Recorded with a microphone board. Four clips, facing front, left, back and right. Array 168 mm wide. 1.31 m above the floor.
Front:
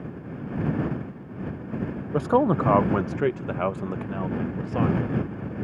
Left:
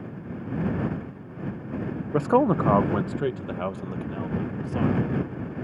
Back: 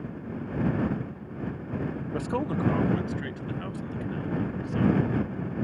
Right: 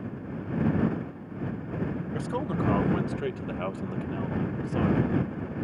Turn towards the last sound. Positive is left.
turn(degrees=-5)